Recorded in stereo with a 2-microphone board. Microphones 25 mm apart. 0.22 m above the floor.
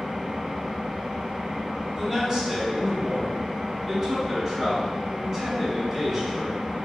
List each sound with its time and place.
0.0 s an engine running: 40° right (ahead or behind), 0.8 m
1.9 s a man speaking: 20° right (ahead or behind), 1.4 m